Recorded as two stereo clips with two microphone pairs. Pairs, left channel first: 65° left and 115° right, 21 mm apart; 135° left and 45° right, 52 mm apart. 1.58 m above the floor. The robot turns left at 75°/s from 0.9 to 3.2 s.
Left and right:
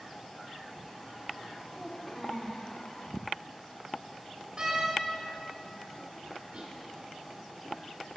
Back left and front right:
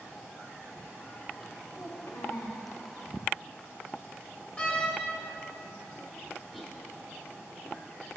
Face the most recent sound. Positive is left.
turn(degrees=-145)